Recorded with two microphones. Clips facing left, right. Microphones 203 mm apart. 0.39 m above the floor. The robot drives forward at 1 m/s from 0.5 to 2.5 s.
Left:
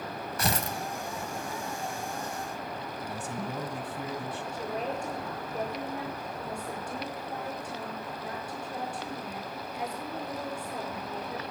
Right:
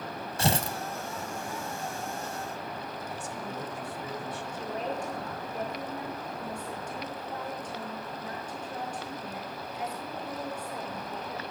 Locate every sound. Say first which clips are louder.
0.4 s tearing paper: right 3 dB; 25° right (ahead or behind), 1.1 m; by 0.8 s 30° right (ahead or behind), 0.9 m
3.0 s a man speaking: left 2 dB; 55° left (ahead or behind), 2 m
4.5 s a woman speaking: even; 10° left (ahead or behind), 7 m